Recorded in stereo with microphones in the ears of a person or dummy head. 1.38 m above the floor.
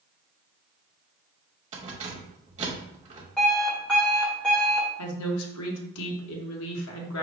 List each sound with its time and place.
1.7 s keys jangling: 35° right (ahead or behind), 0.9 m
3.4 s an alarm clock: 5° left (ahead or behind), 1.3 m
5.0 s a woman speaking: 80° left, 0.9 m